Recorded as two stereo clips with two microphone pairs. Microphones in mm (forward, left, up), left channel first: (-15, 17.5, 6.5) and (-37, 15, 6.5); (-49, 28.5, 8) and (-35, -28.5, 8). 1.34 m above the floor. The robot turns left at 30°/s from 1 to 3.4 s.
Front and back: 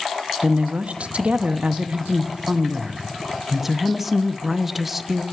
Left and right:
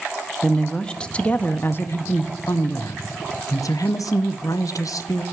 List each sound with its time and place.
0.4 s a woman speaking: straight behind, 0.7 m; by 5.2 s 105° left, 0.7 m